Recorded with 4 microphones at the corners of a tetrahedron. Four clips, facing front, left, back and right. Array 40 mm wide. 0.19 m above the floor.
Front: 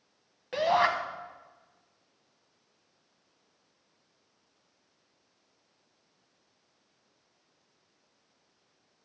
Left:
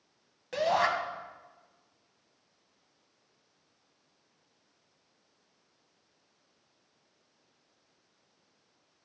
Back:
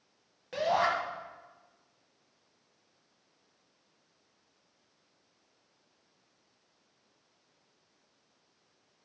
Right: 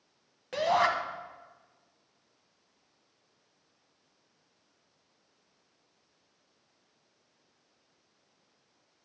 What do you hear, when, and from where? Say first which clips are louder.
0.5 s a shout: right 1 dB, front 3 dB; 10° right, 1.1 m